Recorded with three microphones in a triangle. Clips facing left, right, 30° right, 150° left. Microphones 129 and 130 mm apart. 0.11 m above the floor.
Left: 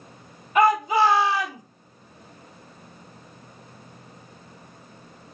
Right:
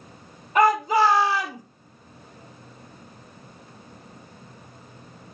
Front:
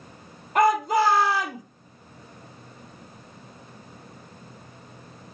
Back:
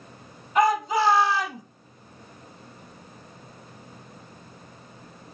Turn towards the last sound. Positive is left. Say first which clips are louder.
# even, front 1 dB
turn(degrees=-45)